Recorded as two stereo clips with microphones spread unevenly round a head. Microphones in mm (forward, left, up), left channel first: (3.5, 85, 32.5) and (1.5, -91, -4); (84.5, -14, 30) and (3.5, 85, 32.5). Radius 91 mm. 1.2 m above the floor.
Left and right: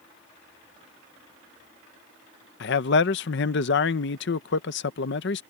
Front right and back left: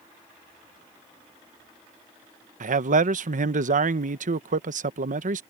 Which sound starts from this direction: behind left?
A man speaking, at 2.6 s.